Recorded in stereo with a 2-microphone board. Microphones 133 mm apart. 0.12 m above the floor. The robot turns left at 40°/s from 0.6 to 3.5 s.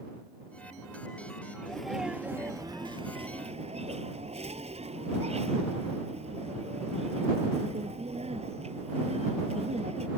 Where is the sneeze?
10° left; by 10.1 s 65° right.